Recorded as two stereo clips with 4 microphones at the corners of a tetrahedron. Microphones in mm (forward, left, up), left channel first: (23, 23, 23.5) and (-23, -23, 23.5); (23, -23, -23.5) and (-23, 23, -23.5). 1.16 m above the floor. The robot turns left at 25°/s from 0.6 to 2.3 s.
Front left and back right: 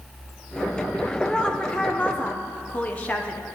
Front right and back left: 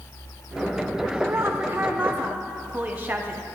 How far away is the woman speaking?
About 0.6 m.